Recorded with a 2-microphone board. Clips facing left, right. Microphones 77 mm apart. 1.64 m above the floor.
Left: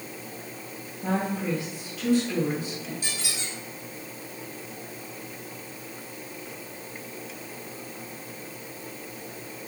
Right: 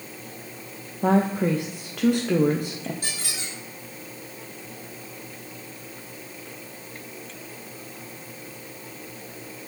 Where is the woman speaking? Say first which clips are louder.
Right 7 dB; 60° right (ahead or behind), 0.6 m.